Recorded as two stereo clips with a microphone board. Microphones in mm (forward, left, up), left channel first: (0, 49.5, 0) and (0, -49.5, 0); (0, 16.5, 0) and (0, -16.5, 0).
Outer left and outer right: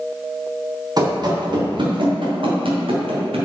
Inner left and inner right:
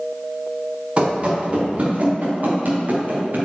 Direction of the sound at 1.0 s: 40° right (ahead or behind).